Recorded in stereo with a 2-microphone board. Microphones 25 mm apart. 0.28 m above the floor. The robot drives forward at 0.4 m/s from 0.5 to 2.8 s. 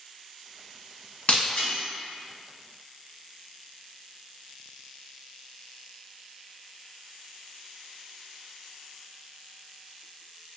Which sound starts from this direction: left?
Breaking glass, at 1.3 s.